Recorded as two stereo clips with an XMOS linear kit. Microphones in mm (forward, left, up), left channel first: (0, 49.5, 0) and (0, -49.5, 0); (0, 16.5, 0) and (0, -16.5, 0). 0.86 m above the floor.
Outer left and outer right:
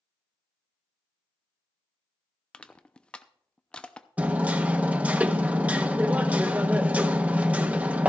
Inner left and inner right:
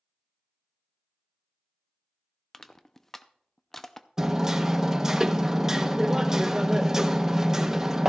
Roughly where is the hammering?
Centre.